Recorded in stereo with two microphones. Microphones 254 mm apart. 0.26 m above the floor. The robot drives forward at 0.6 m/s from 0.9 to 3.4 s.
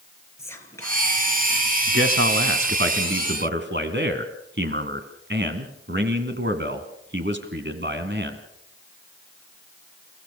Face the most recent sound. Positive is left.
turn(degrees=-45)  # may be behind; listen again after turning